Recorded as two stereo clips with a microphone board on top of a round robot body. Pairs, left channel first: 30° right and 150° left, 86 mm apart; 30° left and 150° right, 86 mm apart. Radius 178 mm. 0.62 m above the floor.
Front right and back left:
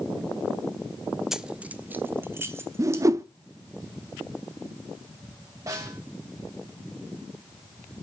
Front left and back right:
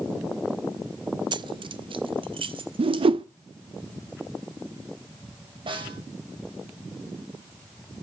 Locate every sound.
1.3 s keys jangling: 125° right, 0.6 m; by 3.0 s 150° right, 1.5 m
2.8 s a whoosh: 155° right, 0.6 m
5.7 s a snare drum: 160° right, 5 m